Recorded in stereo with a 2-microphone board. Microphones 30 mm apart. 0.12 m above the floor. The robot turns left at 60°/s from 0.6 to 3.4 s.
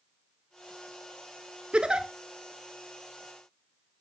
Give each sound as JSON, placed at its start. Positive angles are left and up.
{"t": 1.7, "sound": "a giggle", "side_deg": -40, "distance_m": 0.6}